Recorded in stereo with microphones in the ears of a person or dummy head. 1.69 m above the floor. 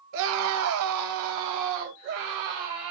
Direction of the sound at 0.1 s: 80° right.